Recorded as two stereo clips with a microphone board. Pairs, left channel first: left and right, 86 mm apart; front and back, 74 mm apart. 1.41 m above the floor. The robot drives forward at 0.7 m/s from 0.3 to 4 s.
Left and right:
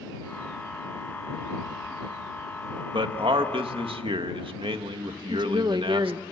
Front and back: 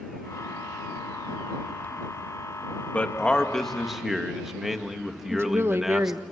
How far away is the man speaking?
About 1.9 m.